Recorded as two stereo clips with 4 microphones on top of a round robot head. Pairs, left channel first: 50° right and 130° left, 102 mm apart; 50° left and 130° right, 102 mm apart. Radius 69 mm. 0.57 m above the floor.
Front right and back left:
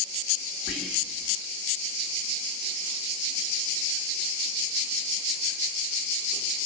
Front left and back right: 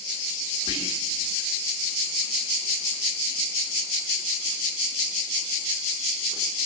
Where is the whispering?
40° left, 1.9 m.